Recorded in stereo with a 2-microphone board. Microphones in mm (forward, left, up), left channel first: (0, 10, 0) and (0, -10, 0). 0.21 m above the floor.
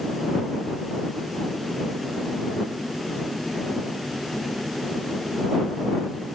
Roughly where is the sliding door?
No sliding door in this recording.